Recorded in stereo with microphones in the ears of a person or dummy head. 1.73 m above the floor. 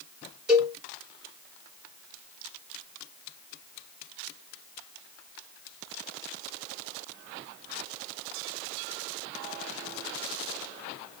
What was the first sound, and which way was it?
A cowbell, 5° right (ahead or behind).